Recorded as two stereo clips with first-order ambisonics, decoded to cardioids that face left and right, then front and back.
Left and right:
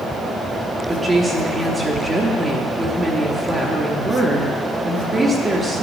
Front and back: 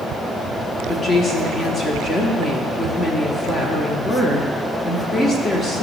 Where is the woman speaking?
25° right, 0.8 m.